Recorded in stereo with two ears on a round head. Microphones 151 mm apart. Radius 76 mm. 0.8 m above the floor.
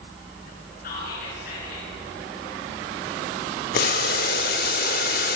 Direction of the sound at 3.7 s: 55° left (ahead or behind).